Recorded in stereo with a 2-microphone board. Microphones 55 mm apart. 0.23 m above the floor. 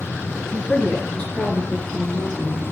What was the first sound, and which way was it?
A woman speaking, 20° left (ahead or behind).